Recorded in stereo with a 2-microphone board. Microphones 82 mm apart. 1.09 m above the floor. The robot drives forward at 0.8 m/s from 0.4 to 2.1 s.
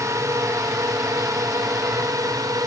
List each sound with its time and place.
0.0 s a drone: 40° right (ahead or behind); by 2.7 s 45° right (ahead or behind)